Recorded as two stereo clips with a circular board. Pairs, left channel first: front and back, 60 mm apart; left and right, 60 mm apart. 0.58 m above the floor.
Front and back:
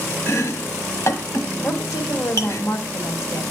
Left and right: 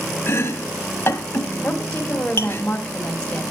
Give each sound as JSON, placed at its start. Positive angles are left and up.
{"t": 0.3, "sound": "chopping", "azimuth_deg": 40, "distance_m": 1.0}
{"t": 1.6, "sound": "a woman speaking", "azimuth_deg": 15, "distance_m": 2.5}